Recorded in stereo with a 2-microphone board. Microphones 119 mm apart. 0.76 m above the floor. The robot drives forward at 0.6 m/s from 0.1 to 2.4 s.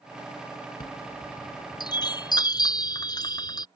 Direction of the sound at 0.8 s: 40° left (ahead or behind).